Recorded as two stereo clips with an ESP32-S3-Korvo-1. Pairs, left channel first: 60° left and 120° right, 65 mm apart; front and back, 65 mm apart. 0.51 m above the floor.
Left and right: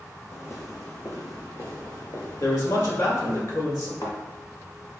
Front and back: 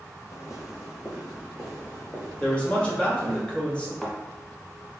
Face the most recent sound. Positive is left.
turn(degrees=80)